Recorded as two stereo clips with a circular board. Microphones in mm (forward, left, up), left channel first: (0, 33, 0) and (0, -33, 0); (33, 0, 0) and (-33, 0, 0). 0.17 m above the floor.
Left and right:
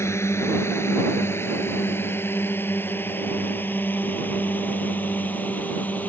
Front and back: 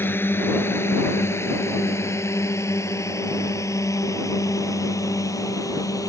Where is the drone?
50° left; by 6.1 s 25° left.